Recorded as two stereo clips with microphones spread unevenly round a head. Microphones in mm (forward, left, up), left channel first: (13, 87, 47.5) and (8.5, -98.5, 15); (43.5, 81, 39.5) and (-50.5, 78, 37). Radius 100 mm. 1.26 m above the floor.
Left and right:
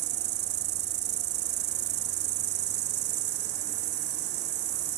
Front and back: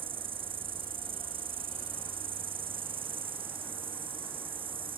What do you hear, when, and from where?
0.0 s an insect: 130° right